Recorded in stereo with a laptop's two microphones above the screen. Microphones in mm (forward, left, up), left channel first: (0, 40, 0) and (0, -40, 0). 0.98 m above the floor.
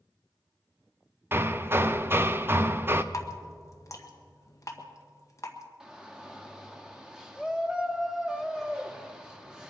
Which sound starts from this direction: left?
Dripping, at 3.1 s.